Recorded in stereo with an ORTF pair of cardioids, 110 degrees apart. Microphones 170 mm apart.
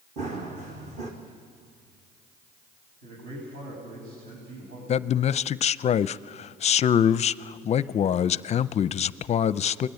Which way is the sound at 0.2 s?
45° right.